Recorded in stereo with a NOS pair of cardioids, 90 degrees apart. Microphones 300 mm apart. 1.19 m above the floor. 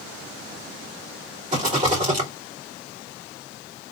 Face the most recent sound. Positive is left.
turn(degrees=-25)